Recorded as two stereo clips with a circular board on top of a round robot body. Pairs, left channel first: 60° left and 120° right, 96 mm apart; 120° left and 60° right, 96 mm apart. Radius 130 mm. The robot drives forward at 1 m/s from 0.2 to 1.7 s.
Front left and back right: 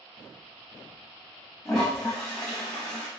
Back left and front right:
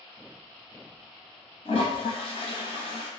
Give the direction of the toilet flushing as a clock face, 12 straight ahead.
7 o'clock.